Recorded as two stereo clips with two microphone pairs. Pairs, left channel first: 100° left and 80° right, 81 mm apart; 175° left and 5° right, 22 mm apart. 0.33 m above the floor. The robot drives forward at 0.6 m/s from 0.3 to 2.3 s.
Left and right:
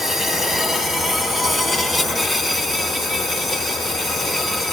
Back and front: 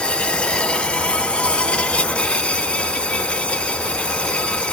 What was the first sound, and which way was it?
An insect, 165° right.